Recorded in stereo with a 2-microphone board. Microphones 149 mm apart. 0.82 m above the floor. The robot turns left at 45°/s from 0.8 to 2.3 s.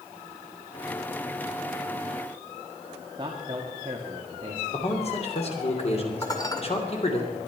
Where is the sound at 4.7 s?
45° left (ahead or behind), 3 m.